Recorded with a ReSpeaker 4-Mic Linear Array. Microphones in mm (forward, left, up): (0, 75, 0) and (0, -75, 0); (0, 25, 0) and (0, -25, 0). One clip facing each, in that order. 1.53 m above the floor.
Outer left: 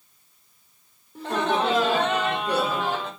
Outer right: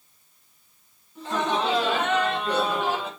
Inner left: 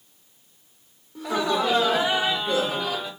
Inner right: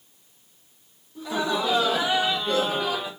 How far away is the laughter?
About 1.6 m.